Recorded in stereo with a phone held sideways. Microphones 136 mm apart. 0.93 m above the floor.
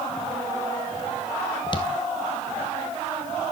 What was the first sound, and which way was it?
Footsteps, 35° left (ahead or behind).